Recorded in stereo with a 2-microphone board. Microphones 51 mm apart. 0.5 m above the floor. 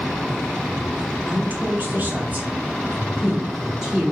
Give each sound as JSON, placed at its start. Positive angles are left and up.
{"t": 1.3, "sound": "a woman speaking", "side_deg": -35, "distance_m": 0.9}